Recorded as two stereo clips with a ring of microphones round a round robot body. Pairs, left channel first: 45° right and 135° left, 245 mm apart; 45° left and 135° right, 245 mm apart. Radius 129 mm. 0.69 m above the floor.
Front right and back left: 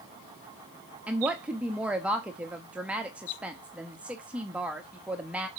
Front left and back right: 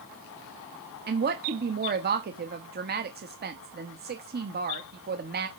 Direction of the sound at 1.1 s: 145° right.